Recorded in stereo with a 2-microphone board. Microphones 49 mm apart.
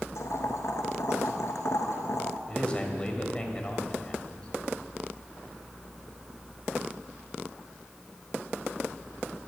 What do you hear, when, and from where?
0.1 s boiling: 80° left, 1.0 m
2.5 s a man speaking: 20° left (ahead or behind), 1.9 m